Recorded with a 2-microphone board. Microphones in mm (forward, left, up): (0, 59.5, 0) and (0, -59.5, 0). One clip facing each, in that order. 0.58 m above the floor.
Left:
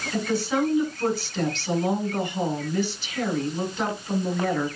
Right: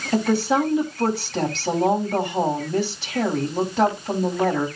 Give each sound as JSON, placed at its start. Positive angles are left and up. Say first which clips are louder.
{"t": 0.1, "sound": "a woman speaking", "louder": "right 6 dB", "side_deg": -75, "distance_m": 4.5}